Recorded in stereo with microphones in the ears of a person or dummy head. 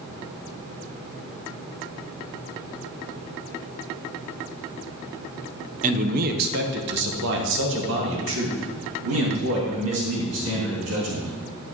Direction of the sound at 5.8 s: 40° right (ahead or behind).